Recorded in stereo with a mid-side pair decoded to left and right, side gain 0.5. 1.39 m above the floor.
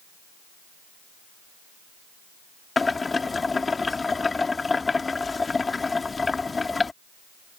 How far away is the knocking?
No knocking in this recording.